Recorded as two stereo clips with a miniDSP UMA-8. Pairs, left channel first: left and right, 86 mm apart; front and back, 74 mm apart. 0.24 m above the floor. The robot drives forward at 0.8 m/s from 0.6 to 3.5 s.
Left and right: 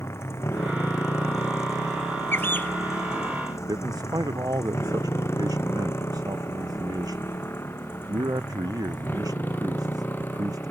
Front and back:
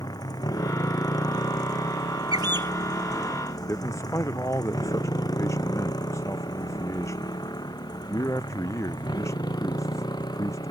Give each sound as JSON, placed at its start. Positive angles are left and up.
{"t": 0.0, "sound": "a motorcycle", "azimuth_deg": 30}
{"t": 2.3, "sound": "a bird", "azimuth_deg": 155}
{"t": 3.7, "sound": "a man speaking", "azimuth_deg": -45}